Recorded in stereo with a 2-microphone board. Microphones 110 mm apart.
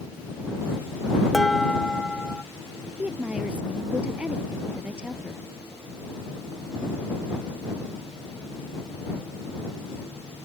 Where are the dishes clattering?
Centre (ahead or behind).